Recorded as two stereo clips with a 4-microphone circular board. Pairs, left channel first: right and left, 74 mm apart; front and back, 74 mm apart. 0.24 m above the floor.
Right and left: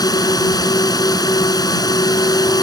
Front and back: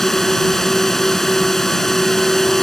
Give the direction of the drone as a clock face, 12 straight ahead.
3 o'clock.